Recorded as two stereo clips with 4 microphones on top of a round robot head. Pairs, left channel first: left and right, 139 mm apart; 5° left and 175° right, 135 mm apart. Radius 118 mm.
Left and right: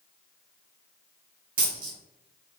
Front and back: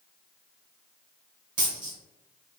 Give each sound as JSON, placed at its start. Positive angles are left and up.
{"t": 1.6, "sound": "a dropped coin", "azimuth_deg": -115, "distance_m": 0.7}